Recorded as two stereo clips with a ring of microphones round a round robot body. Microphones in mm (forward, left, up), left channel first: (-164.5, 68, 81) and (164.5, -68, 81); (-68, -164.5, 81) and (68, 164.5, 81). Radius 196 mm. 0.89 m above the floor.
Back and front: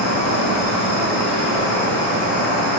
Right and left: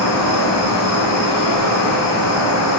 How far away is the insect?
About 2.0 m.